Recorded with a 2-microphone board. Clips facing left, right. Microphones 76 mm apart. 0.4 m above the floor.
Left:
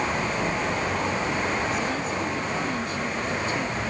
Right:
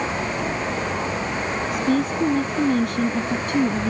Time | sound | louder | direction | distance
1.7 | a woman speaking | right 6 dB | 70° right (ahead or behind) | ?